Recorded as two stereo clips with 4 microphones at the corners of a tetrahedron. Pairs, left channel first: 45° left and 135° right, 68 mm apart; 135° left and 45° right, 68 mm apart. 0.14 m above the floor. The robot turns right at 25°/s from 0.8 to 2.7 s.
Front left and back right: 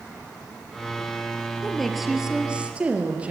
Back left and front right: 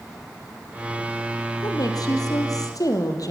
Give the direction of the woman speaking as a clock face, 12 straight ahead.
8 o'clock.